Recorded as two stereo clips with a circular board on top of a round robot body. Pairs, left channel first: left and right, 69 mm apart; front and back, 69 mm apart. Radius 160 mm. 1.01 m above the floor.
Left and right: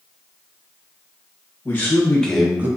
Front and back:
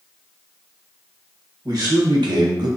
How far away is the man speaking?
About 1.0 m.